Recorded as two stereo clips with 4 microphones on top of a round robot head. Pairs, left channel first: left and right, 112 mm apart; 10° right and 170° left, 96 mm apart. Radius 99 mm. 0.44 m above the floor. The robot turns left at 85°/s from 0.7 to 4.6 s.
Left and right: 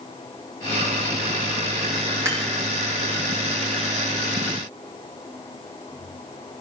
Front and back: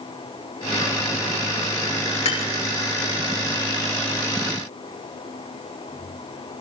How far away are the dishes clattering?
About 4 m.